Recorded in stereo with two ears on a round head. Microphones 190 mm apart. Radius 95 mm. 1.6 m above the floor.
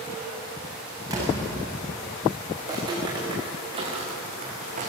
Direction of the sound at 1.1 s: 15° right (ahead or behind).